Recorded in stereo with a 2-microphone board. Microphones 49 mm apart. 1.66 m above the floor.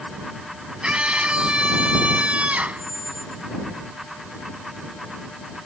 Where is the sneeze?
No sneeze in this recording.